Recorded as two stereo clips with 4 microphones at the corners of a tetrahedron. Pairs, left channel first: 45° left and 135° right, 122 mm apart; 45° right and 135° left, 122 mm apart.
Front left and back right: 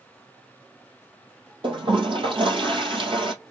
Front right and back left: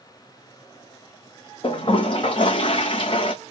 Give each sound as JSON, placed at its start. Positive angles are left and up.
{"t": 1.6, "sound": "a toilet flushing", "azimuth_deg": -90, "distance_m": 2.0}